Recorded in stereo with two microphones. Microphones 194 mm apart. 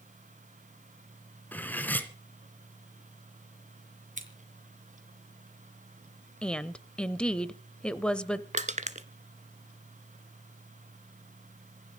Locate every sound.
1.5 s cutlery clinking: 10° left (ahead or behind), 1.7 m
4.2 s scissors: 40° right (ahead or behind), 4 m
6.4 s a woman speaking: 5° left (ahead or behind), 0.9 m
8.5 s crushing: 40° right (ahead or behind), 1.0 m